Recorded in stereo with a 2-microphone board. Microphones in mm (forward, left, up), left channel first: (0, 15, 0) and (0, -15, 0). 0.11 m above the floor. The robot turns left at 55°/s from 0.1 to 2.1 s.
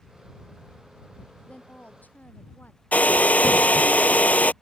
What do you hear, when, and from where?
1.5 s a woman speaking: 135° left; by 2.8 s 100° left
2.9 s a hair dryer: 65° left (ahead or behind)